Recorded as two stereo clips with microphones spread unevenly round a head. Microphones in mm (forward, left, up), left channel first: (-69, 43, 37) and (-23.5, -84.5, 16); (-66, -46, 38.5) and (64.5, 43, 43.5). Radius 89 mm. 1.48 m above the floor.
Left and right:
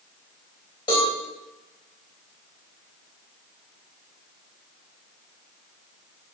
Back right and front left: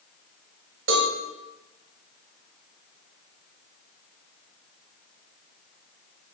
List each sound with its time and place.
0.9 s a cowbell: 45° left, 3.5 m